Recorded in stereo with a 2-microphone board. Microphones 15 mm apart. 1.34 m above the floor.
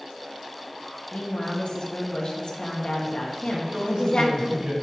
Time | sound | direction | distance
1.1 | a woman speaking | 75° left (ahead or behind) | 2 m
3.5 | a man speaking | 70° right (ahead or behind) | 4.5 m